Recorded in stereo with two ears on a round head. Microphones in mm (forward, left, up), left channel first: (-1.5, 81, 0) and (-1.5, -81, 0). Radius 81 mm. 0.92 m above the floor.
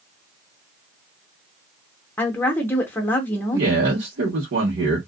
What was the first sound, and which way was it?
A woman speaking, 10° left (ahead or behind).